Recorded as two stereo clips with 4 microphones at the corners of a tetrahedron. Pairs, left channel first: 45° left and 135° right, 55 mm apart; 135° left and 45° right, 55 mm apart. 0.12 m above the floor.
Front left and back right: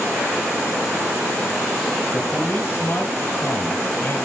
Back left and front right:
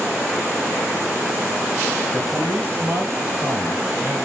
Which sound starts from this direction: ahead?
A man speaking, at 2.1 s.